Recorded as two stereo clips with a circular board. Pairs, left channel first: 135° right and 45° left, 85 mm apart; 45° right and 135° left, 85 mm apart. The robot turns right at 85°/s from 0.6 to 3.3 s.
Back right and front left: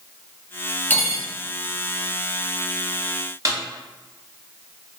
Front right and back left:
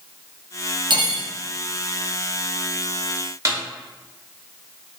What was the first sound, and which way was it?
Cutlery clinking, 155° left.